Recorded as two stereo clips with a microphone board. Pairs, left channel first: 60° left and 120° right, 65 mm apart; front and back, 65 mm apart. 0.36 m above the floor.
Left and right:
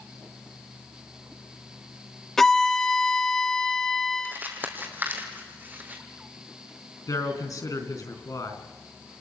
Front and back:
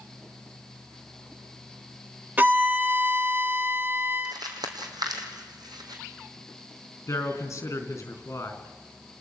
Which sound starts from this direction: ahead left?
A man speaking, at 7.1 s.